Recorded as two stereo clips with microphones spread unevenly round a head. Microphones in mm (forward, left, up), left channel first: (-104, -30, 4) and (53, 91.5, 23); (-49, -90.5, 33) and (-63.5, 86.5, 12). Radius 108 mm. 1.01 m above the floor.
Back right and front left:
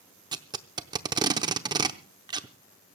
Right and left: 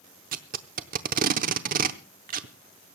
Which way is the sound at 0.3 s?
80° left.